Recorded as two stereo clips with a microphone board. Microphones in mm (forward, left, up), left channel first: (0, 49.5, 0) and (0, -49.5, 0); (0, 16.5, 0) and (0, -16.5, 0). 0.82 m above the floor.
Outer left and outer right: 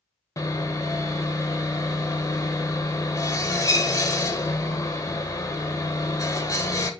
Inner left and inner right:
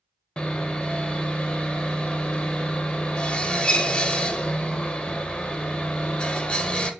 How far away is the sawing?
About 0.6 m.